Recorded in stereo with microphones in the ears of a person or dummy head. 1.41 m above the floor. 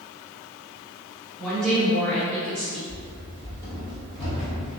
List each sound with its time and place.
1.4 s a woman speaking: centre (ahead or behind), 1.0 m
2.9 s running footsteps: 30° left (ahead or behind), 1.6 m; by 4.8 s centre (ahead or behind), 1.4 m